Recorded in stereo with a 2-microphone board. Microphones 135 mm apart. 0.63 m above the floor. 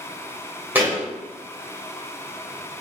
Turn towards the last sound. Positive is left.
turn(degrees=-15)  # may be behind; listen again after turning